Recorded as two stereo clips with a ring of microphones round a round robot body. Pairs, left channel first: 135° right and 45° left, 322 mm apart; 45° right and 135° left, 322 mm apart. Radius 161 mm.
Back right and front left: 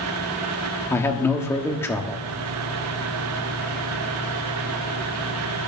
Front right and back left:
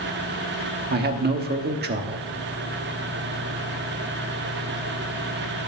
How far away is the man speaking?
About 1.2 m.